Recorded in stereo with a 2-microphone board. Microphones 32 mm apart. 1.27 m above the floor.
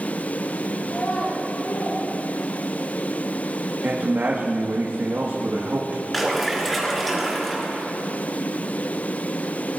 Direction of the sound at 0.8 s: 40° left (ahead or behind).